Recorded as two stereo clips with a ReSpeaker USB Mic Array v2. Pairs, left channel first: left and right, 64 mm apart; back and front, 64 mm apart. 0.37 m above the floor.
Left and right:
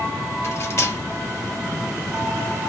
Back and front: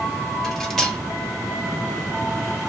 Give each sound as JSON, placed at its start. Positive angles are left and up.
{"t": 0.4, "sound": "cutlery clinking", "azimuth_deg": 100, "distance_m": 0.7}